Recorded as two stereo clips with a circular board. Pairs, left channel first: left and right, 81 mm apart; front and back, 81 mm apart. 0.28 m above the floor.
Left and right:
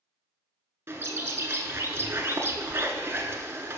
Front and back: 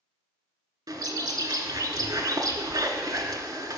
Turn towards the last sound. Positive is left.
turn(degrees=-150)